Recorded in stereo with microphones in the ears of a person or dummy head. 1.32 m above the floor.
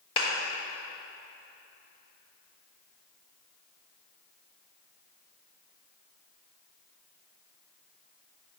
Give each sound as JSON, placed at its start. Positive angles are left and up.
{"t": 0.2, "sound": "a clap", "side_deg": 30, "distance_m": 1.5}